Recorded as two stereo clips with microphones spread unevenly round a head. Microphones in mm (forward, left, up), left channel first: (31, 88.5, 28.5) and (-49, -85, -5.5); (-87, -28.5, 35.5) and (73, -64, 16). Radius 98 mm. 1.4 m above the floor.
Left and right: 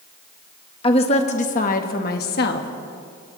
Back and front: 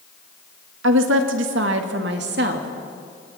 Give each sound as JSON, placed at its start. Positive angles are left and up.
{"t": 0.8, "sound": "a woman speaking", "azimuth_deg": 5, "distance_m": 1.7}